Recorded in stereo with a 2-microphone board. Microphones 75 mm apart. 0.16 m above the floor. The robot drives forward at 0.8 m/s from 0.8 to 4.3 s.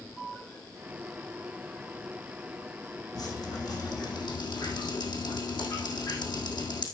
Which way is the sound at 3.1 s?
55° left (ahead or behind).